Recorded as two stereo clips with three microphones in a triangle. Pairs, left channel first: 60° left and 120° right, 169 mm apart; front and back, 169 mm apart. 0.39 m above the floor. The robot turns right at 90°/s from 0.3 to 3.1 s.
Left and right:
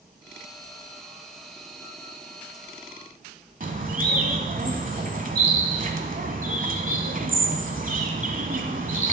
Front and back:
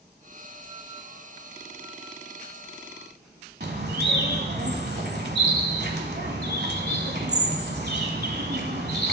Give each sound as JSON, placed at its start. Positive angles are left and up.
{"t": 3.6, "sound": "a bird", "azimuth_deg": -160, "distance_m": 0.9}